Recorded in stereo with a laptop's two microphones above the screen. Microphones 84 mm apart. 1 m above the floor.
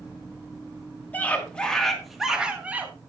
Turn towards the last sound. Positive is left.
turn(degrees=-20)  # may be behind; listen again after turning